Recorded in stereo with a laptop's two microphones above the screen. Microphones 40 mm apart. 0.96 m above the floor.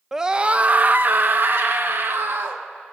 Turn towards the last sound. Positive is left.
turn(degrees=-65)  # may be behind; listen again after turning